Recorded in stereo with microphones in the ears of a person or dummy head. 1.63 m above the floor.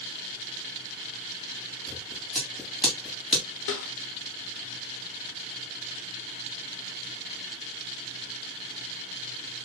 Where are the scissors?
5° right (ahead or behind), 2.5 m.